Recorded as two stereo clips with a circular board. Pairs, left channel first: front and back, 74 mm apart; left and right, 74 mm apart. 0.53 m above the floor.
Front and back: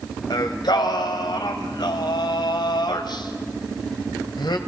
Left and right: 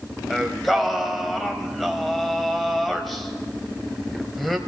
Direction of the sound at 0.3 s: 5° left.